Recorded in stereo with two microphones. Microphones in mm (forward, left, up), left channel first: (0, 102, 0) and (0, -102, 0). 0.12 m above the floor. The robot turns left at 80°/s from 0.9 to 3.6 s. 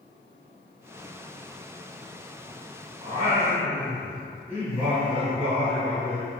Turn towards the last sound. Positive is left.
turn(degrees=-10)  # may be behind; listen again after turning